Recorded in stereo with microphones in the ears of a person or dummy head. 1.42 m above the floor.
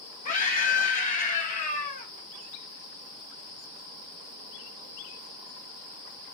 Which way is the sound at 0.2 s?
45° left (ahead or behind).